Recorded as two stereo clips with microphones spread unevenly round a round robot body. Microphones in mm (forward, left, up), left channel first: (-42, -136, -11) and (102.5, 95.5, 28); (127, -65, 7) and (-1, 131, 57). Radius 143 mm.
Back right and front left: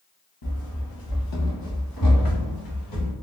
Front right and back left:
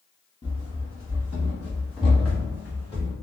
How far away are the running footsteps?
About 1.0 m.